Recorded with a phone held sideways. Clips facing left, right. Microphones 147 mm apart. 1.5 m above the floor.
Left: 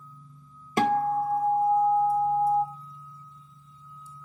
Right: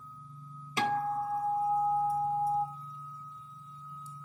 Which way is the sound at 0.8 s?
50° left (ahead or behind).